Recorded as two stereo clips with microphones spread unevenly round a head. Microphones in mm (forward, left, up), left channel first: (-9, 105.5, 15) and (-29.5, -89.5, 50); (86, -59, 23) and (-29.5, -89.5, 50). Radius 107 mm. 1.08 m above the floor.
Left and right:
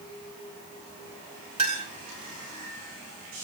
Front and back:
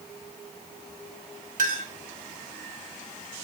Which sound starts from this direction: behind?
A clink, at 1.6 s.